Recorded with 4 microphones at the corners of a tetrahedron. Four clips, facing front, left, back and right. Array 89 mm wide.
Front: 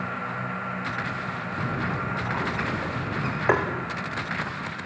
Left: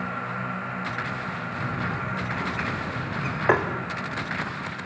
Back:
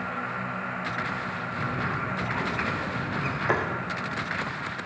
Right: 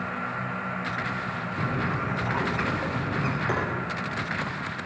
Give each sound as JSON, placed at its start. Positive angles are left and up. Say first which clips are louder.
{"t": 1.6, "sound": "a bird", "louder": "right 2 dB, front 1 dB", "azimuth_deg": -50, "distance_m": 5.5}
{"t": 3.5, "sound": "tapping", "louder": "left 10 dB, front 4 dB", "azimuth_deg": 55, "distance_m": 5.5}